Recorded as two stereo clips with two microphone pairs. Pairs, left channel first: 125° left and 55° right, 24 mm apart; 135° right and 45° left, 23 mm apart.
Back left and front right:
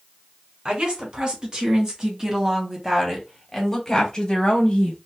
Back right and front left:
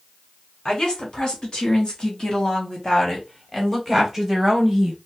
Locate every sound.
0.7 s a woman speaking: 100° right, 1.9 m; by 5.0 s 110° left, 1.2 m